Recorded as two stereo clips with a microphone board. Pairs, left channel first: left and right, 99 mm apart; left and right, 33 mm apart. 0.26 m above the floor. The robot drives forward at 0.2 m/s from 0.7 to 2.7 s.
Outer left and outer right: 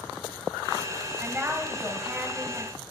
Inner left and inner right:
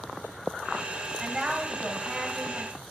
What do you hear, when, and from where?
1.2 s a woman speaking: 20° right (ahead or behind), 1.2 m